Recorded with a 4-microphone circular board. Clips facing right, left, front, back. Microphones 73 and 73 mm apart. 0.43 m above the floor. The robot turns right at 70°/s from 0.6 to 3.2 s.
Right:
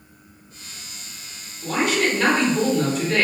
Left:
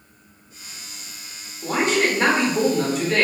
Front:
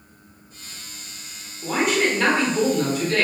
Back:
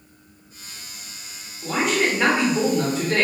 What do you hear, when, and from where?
1.6 s a man speaking: 75° left, 0.9 m; by 3.2 s 175° right, 0.9 m